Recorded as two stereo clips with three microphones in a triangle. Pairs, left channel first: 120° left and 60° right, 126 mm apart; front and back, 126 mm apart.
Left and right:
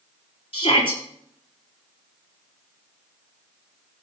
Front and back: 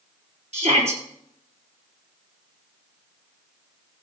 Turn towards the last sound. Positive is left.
turn(degrees=160)